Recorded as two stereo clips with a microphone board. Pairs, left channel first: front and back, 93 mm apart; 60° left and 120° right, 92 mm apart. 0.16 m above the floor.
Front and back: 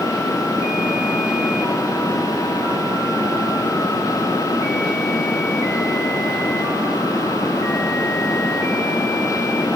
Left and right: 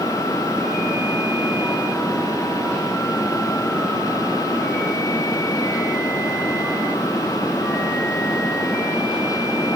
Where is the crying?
No crying in this recording.